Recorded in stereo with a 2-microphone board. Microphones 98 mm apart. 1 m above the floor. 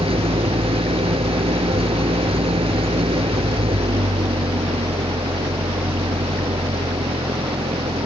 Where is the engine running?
75° right (ahead or behind).